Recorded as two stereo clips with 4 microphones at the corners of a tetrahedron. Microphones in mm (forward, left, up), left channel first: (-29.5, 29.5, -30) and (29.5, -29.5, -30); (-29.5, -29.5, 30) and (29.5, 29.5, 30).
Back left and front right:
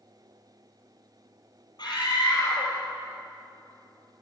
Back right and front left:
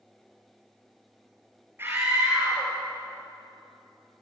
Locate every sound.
1.8 s a scream: 105° left, 4 m